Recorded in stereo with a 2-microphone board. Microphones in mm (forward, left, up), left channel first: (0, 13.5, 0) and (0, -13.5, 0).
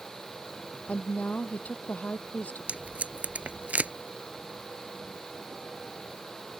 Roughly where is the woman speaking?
Left.